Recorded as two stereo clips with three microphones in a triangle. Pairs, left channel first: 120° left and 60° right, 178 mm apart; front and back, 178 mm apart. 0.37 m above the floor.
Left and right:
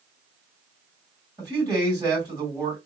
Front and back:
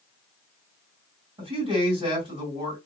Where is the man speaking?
130° right, 2.5 m.